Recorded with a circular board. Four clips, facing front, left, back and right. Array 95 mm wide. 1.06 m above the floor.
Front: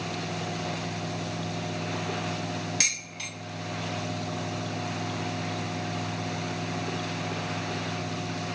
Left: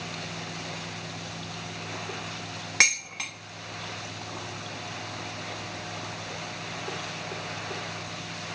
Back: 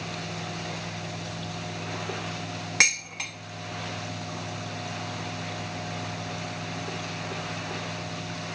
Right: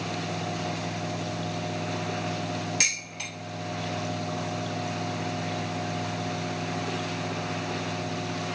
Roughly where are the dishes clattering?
Behind left.